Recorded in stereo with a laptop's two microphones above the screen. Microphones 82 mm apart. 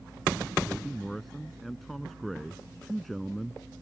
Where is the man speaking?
Centre (ahead or behind).